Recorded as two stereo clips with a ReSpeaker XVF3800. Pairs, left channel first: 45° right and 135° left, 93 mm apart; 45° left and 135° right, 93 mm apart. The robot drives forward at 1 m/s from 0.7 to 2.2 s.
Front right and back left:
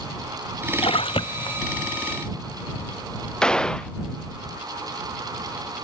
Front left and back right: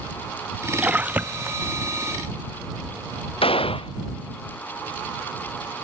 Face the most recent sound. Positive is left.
turn(degrees=35)